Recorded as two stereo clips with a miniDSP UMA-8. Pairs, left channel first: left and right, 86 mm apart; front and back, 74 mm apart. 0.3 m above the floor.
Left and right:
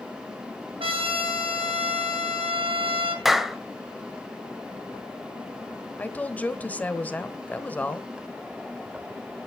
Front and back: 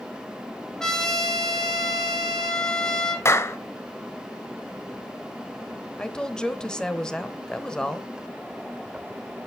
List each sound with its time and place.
0.8 s a trumpet: 85° right, 2.5 m
3.2 s a clap: 5° right, 1.0 m
6.0 s a woman speaking: 60° left, 1.0 m